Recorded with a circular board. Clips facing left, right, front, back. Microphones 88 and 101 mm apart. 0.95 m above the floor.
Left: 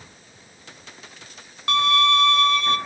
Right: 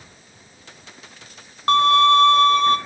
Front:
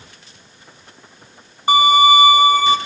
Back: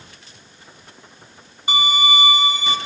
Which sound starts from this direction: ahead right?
A violin, at 1.7 s.